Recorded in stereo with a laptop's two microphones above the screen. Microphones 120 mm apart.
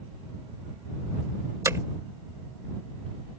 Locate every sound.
1.6 s hammering: 25° right (ahead or behind)